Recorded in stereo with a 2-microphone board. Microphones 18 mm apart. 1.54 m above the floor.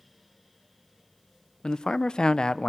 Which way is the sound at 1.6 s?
50° left (ahead or behind).